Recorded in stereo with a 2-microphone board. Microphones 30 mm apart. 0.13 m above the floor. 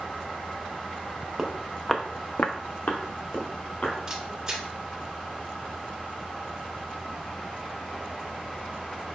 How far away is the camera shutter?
About 1.4 m.